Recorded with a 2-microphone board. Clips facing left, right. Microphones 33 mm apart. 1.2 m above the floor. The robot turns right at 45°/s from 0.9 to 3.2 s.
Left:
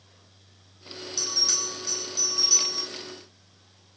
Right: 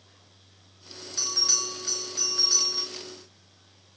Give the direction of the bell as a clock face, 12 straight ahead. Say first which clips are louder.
Right 1 dB; 4 o'clock.